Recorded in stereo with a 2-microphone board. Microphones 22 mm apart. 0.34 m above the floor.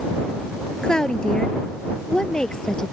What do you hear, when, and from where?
0.8 s a woman speaking: 30° left (ahead or behind); by 2.9 s 35° left (ahead or behind)